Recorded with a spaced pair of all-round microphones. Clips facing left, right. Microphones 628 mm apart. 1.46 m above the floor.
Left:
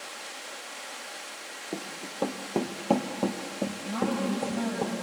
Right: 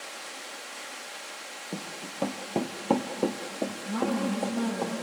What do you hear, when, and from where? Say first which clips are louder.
1.7 s running footsteps: left 2 dB; 35° right (ahead or behind), 1.8 m; by 4.8 s 55° left (ahead or behind), 3 m
3.9 s a woman speaking: right 1 dB; 5° left (ahead or behind), 6 m